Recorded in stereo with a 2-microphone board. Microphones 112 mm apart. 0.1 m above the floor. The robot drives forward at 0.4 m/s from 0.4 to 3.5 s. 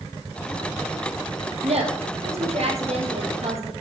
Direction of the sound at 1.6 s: 65° right (ahead or behind).